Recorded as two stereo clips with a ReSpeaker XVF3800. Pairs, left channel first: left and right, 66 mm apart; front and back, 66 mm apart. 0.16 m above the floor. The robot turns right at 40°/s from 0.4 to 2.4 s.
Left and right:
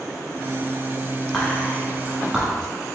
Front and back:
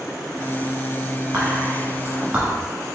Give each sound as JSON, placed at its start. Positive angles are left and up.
{"t": 1.3, "sound": "whispering", "azimuth_deg": 170, "distance_m": 1.1}